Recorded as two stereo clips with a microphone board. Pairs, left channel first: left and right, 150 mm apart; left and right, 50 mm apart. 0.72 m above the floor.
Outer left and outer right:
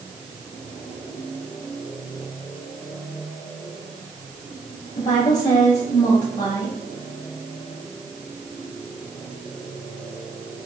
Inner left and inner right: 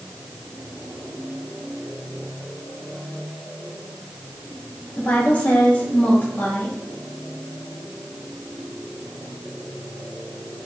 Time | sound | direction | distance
5.0 | a woman speaking | 55° left (ahead or behind) | 2 m